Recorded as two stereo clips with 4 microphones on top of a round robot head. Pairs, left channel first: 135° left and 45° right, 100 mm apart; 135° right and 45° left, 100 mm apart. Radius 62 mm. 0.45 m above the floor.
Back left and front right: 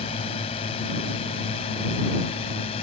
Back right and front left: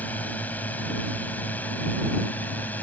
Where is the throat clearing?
No throat clearing in this recording.